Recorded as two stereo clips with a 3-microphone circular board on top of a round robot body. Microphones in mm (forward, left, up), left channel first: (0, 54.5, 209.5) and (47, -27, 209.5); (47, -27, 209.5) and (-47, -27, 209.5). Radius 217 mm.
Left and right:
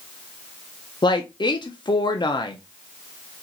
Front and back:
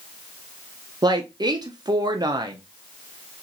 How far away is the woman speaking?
About 0.8 m.